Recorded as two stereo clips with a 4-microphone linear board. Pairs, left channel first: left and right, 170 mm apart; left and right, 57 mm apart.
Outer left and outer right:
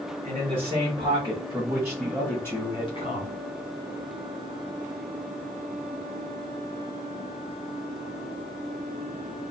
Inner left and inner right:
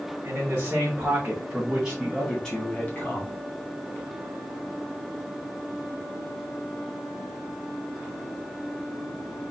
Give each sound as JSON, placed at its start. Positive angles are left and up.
{"t": 0.2, "sound": "a man speaking", "side_deg": -50, "distance_m": 1.3}